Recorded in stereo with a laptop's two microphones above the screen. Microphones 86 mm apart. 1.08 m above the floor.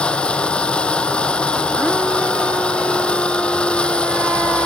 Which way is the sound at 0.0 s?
15° left (ahead or behind).